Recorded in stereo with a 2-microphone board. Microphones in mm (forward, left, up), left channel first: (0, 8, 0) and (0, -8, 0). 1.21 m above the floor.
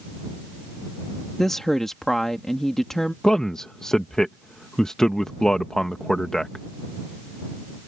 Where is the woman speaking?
30° left (ahead or behind).